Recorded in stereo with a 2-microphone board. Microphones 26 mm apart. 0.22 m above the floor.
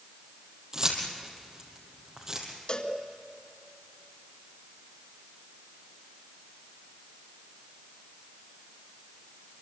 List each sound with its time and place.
0.7 s keys jangling: 25° right (ahead or behind), 4.5 m
2.7 s a cowbell: 45° left (ahead or behind), 2 m